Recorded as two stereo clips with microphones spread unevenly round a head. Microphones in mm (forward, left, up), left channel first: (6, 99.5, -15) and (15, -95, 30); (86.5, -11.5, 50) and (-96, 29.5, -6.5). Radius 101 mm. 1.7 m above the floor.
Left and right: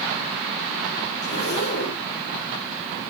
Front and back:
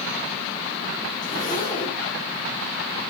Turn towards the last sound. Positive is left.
turn(degrees=55)